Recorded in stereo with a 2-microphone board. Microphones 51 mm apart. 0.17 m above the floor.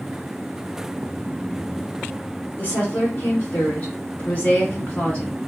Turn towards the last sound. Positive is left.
turn(degrees=30)  # may be behind; listen again after turning